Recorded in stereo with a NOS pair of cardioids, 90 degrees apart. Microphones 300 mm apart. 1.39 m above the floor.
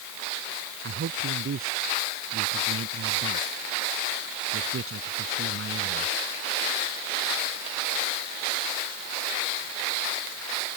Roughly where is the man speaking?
Ahead right.